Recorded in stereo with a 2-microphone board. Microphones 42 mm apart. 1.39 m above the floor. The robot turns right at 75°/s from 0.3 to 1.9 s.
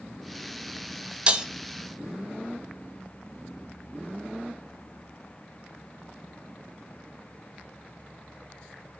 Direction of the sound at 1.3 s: 30° right (ahead or behind).